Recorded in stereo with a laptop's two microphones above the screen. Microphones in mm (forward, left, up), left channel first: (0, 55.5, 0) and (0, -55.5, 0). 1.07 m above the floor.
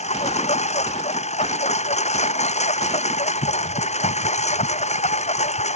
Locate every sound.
0.0 s a lawn mower: 75° left (ahead or behind)